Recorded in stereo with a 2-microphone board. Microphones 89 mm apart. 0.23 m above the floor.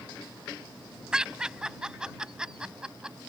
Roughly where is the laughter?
Centre.